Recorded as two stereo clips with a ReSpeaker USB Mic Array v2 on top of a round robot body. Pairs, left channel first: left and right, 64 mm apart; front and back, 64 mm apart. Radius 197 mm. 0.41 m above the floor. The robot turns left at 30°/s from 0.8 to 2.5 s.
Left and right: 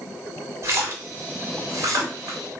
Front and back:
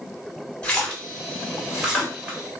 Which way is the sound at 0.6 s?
70° right.